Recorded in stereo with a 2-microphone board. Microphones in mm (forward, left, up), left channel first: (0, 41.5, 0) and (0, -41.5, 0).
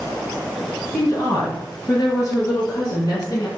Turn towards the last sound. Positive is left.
turn(degrees=45)  # may be behind; listen again after turning